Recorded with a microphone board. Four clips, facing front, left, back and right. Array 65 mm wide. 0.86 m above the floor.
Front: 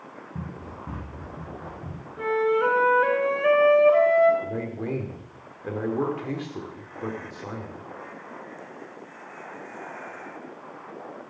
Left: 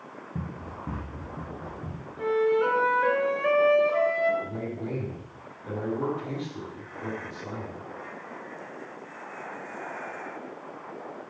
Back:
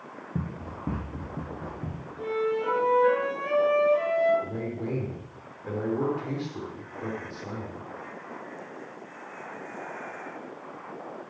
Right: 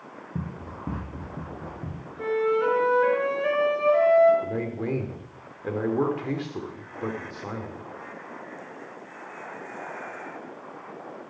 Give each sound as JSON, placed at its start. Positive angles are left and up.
{"t": 0.3, "sound": "running footsteps", "azimuth_deg": -160, "distance_m": 3.0}
{"t": 2.2, "sound": "a flute", "azimuth_deg": 0, "distance_m": 3.0}
{"t": 4.4, "sound": "a man speaking", "azimuth_deg": -65, "distance_m": 3.0}